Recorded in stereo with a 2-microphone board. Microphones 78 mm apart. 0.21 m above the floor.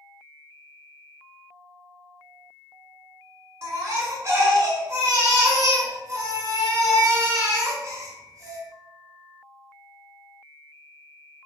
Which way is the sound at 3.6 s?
35° right (ahead or behind).